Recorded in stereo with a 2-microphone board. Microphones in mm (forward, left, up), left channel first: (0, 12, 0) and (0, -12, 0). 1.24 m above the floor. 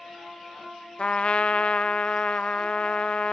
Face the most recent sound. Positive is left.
turn(degrees=55)  # may be behind; listen again after turning